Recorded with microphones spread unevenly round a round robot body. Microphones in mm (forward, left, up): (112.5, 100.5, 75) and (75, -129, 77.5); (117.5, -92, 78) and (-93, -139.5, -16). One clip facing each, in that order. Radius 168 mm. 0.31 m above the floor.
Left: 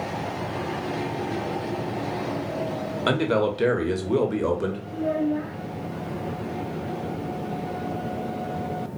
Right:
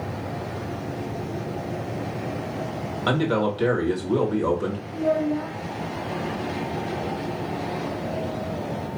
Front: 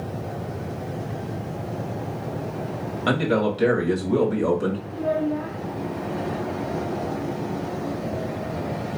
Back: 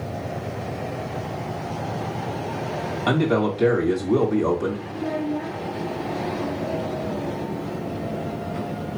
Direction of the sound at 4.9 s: 5° left.